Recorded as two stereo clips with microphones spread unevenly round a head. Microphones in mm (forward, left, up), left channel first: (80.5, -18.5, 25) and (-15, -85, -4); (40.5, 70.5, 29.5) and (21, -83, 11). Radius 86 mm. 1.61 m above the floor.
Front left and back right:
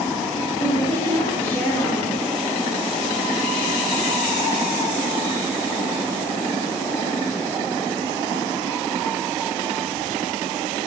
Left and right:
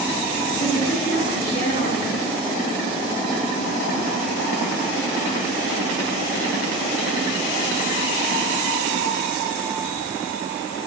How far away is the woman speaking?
About 8.5 m.